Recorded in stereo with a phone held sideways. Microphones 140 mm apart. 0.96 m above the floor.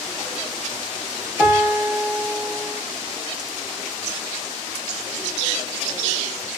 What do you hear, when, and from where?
1.4 s a piano: 20° right (ahead or behind), 0.9 m